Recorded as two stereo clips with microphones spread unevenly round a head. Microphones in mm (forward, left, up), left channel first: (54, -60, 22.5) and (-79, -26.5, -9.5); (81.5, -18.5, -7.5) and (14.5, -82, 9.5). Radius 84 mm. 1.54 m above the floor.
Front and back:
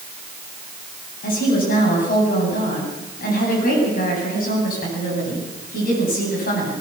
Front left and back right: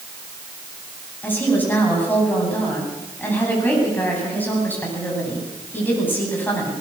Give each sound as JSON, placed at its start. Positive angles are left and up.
{"t": 1.2, "sound": "a woman speaking", "azimuth_deg": -25, "distance_m": 9.5}